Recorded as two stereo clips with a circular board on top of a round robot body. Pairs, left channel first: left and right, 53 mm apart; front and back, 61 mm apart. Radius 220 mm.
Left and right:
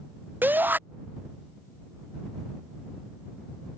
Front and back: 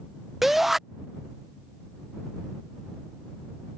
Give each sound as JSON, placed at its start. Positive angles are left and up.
{"t": 0.4, "sound": "a shout", "azimuth_deg": -95}